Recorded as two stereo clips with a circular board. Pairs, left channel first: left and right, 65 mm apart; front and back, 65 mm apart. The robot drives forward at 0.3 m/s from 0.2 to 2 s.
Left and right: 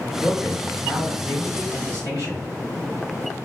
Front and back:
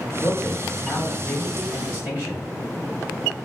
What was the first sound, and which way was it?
A man speaking, 105° right.